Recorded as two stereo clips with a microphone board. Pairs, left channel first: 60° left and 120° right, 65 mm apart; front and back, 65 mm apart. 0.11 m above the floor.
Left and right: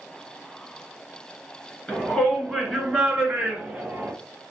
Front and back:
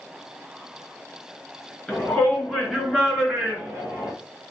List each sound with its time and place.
1.9 s a shout: 25° left, 1.7 m; by 4.1 s 135° right, 1.8 m